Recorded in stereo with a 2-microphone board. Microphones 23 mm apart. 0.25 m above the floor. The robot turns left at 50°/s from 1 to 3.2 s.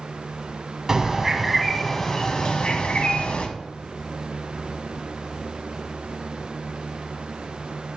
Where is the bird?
155° right, 1.1 m; by 3.5 s 95° left, 1.1 m.